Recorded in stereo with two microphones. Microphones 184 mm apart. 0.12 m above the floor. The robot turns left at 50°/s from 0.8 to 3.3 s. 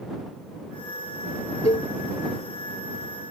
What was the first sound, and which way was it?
A cowbell, 35° left (ahead or behind).